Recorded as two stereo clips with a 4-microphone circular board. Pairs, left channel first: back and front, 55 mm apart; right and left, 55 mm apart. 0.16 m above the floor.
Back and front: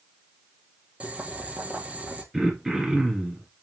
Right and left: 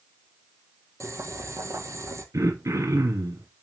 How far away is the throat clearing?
About 2.5 m.